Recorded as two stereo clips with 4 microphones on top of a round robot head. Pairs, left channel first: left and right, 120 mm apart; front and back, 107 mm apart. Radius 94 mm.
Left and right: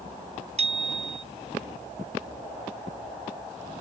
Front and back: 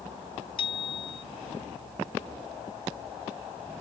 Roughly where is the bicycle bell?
Ahead right.